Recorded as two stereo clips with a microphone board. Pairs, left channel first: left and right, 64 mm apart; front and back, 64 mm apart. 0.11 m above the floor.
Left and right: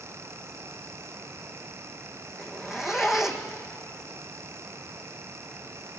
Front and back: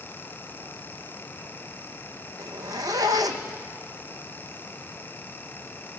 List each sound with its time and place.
2.4 s a zipper: 175° right, 1.4 m